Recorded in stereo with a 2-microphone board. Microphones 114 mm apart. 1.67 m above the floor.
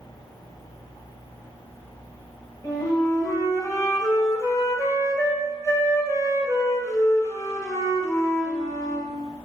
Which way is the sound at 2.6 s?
30° left (ahead or behind).